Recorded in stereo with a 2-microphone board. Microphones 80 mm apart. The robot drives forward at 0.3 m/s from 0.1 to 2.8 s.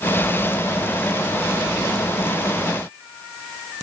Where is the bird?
No bird in this recording.